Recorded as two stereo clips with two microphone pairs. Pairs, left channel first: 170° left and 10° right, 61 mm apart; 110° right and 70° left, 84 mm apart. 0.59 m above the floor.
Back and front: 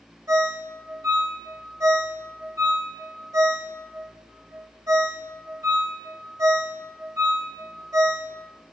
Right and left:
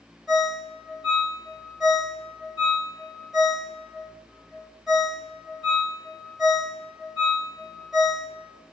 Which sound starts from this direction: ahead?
A ringtone, at 0.3 s.